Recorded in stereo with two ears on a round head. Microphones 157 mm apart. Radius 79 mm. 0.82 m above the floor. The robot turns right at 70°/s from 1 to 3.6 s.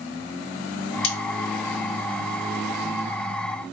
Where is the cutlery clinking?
75° left (ahead or behind), 0.5 m; by 1.2 s 80° left, 0.5 m.